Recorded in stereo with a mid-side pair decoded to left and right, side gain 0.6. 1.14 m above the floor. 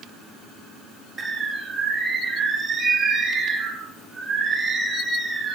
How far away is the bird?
About 0.6 m.